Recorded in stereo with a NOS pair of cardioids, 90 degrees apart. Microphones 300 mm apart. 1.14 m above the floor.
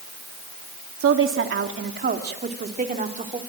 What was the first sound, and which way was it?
A woman speaking, 50° right.